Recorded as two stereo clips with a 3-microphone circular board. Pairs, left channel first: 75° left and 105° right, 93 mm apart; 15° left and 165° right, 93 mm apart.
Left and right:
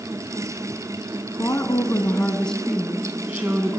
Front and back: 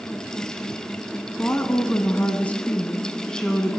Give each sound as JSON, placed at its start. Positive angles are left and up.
{"t": 1.4, "sound": "a woman speaking", "azimuth_deg": 70, "distance_m": 1.2}